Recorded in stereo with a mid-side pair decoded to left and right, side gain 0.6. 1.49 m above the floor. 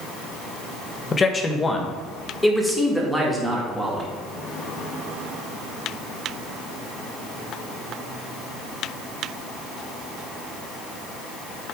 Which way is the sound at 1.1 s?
25° left.